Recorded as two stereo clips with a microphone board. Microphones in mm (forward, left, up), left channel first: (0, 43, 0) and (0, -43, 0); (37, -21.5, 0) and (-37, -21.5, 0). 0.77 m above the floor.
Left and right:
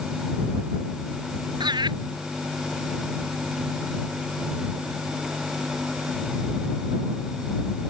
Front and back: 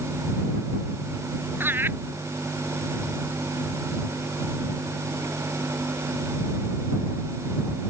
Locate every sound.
1.6 s laughter: 120° right